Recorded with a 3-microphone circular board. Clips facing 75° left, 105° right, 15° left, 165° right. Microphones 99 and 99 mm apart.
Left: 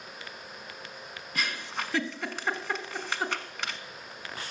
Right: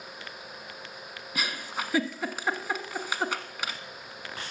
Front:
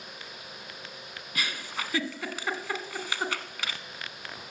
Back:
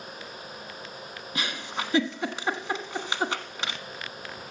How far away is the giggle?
About 1.1 m.